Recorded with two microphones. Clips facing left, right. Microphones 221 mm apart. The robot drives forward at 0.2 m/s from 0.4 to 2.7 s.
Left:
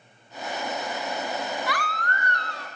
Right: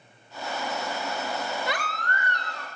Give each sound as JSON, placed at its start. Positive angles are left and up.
{"t": 1.7, "sound": "a baby crying", "side_deg": -25, "distance_m": 0.7}